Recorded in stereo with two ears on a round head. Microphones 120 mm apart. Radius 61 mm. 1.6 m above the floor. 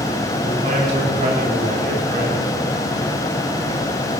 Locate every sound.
0.4 s a man speaking: 60° right (ahead or behind), 6 m; by 2.5 s 75° right (ahead or behind), 5.5 m